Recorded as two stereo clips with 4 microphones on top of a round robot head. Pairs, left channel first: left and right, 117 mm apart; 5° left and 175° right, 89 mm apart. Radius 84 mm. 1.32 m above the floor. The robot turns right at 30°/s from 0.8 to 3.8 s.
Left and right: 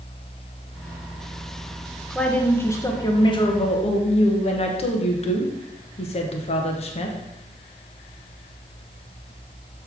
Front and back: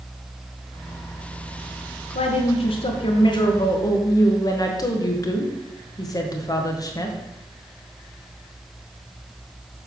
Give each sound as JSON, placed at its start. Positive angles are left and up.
{"t": 2.1, "sound": "a woman speaking", "azimuth_deg": 5, "distance_m": 1.0}